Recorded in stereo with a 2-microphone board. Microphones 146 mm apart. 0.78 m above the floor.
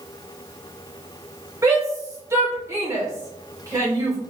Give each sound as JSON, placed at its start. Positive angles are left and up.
{"t": 1.6, "sound": "a shout", "side_deg": -20, "distance_m": 2.0}